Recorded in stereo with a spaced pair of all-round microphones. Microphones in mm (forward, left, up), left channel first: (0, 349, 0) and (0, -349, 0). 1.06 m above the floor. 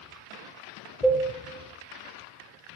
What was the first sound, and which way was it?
A cowbell, centre (ahead or behind).